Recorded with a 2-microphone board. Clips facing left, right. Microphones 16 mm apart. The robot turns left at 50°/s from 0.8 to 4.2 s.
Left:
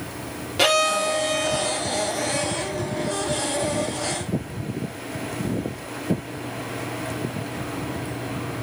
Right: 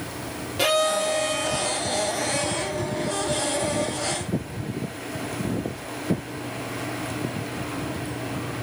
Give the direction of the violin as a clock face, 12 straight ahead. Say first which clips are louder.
Left 2 dB; 7 o'clock.